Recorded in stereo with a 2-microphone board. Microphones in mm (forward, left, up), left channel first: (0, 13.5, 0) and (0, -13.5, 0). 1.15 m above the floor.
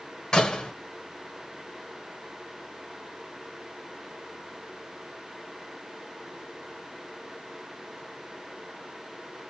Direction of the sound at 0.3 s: 25° left (ahead or behind).